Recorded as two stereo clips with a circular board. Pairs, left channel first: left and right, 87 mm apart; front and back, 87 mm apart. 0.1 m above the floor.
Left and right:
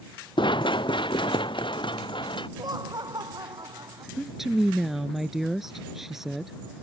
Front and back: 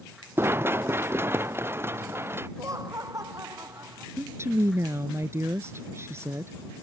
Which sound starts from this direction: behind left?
Running footsteps, at 0.4 s.